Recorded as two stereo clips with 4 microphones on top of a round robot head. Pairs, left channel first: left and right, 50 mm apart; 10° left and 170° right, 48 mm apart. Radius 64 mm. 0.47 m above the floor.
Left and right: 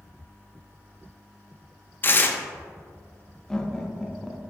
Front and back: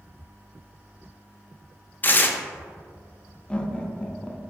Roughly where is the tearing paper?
Ahead left.